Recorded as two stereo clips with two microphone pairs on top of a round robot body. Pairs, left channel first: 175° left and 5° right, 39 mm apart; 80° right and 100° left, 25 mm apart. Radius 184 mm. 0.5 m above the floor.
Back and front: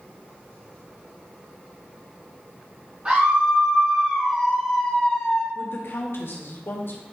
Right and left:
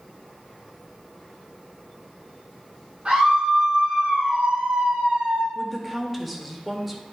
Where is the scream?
45° left, 3.5 m; by 5.5 s 110° left, 3.5 m.